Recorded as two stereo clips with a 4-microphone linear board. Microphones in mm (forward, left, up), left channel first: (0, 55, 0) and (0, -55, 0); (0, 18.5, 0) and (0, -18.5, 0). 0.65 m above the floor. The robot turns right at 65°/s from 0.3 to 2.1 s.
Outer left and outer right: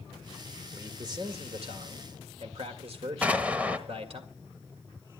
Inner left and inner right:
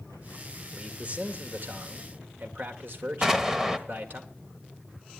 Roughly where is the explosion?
Centre.